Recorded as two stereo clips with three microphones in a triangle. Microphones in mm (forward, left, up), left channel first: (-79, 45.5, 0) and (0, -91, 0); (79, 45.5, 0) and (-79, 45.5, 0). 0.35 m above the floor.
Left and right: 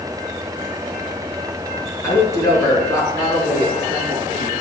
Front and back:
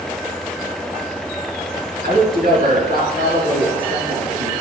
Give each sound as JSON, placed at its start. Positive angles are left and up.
{"t": 2.0, "sound": "a woman speaking", "azimuth_deg": -170, "distance_m": 4.5}